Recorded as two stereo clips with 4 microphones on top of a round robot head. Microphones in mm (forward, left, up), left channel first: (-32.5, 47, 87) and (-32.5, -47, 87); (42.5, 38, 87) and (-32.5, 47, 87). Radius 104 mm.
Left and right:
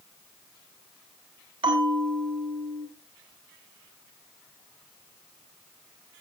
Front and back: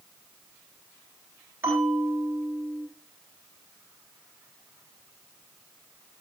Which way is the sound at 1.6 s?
120° right.